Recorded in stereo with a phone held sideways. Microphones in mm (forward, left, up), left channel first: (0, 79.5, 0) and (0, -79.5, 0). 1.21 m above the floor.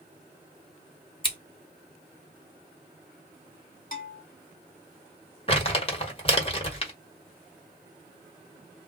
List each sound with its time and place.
1.2 s scissors: 30° left (ahead or behind), 1.0 m
3.9 s a bell: 65° left (ahead or behind), 1.1 m
5.5 s crumpling: 35° left (ahead or behind), 1.2 m